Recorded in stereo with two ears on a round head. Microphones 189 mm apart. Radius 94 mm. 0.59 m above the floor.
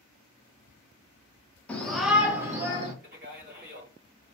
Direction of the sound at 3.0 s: 40° right (ahead or behind).